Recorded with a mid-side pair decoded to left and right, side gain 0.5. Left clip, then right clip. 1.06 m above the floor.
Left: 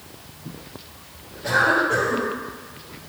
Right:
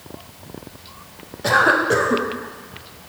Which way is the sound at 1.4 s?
60° right.